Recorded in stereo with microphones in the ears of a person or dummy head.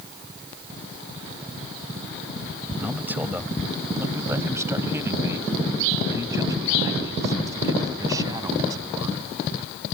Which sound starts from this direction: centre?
A man speaking, at 2.8 s.